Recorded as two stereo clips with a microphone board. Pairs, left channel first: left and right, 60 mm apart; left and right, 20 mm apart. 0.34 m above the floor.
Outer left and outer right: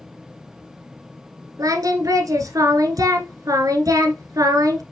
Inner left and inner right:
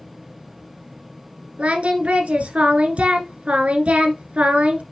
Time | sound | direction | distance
1.6 | singing | 85° right | 1.2 m